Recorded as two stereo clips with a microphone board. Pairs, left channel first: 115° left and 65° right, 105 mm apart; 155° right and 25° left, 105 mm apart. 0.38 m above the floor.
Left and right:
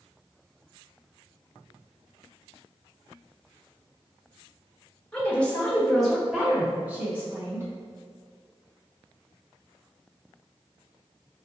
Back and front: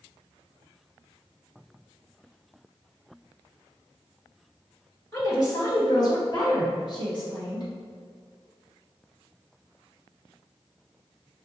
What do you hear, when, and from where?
5.1 s a woman speaking: 175° left, 1.6 m; by 7.7 s 125° right, 2 m